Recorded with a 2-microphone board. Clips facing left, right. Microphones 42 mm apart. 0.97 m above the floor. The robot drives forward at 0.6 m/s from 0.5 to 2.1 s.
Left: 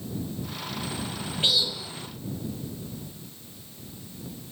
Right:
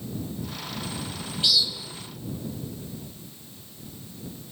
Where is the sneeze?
I don't hear a sneeze.